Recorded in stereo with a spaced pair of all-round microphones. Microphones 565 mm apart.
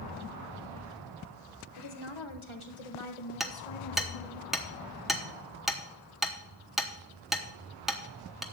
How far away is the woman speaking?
About 1.4 m.